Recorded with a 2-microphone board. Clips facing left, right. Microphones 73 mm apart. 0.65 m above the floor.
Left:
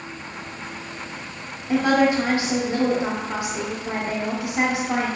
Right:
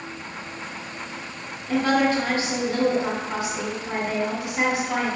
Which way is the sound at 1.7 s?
20° left (ahead or behind).